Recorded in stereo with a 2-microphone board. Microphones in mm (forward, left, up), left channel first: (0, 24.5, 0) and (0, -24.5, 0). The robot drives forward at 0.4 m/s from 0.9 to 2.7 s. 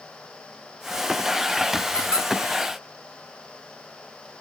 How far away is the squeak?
About 1.5 m.